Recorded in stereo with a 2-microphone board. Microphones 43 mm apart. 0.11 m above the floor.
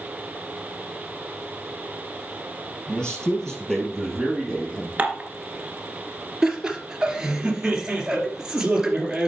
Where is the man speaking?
20° left (ahead or behind), 2 m; by 4.9 s 5° right (ahead or behind), 3.5 m.